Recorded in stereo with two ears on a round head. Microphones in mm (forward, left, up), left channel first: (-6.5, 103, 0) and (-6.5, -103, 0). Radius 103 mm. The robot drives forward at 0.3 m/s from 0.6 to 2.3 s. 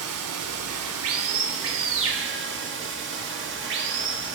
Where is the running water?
70° right (ahead or behind), 0.8 m; by 4.3 s 55° right (ahead or behind), 0.9 m.